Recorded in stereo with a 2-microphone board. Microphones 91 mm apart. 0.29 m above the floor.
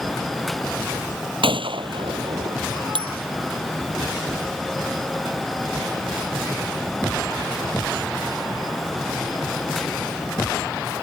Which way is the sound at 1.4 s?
80° right.